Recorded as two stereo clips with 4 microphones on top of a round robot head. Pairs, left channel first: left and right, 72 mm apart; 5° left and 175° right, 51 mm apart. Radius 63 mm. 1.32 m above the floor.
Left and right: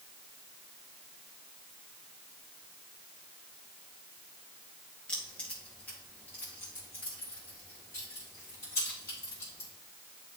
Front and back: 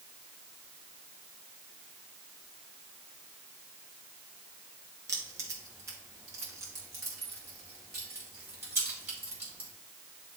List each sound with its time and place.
5.1 s keys jangling: 170° left, 1.6 m; by 9.7 s 145° left, 4 m